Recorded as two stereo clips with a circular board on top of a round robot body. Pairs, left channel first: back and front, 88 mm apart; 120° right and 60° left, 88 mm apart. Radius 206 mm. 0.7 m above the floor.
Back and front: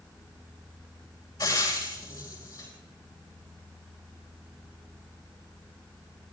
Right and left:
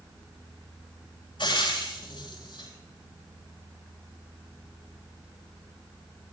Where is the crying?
I don't hear crying.